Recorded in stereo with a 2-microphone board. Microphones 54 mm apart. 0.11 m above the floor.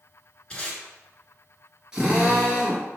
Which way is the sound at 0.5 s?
15° left (ahead or behind).